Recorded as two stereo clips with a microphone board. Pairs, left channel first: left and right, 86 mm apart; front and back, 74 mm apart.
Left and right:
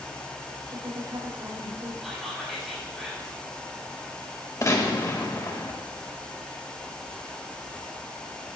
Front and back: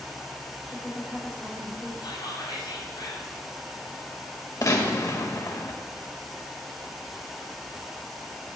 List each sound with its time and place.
0.7 s a woman speaking: 75° right, 3.5 m
2.0 s whispering: straight ahead, 5.5 m
4.6 s a gunshot: 40° left, 1.9 m